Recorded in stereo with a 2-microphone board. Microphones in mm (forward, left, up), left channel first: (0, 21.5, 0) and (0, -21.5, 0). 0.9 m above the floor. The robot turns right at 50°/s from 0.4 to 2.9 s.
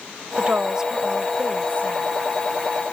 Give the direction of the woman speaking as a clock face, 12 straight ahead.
1 o'clock.